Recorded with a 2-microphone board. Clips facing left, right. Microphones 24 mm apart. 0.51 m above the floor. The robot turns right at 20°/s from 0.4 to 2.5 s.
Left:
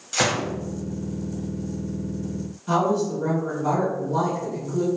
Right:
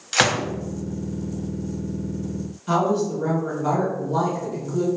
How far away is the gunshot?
About 0.6 m.